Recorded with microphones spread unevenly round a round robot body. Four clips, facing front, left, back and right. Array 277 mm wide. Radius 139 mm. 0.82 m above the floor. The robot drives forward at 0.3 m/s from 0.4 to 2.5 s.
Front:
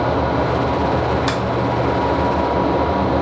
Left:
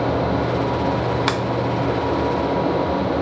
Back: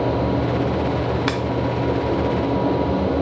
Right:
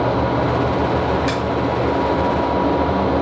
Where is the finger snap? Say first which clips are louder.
Right 1 dB, front 2 dB; 85° left, 0.8 m.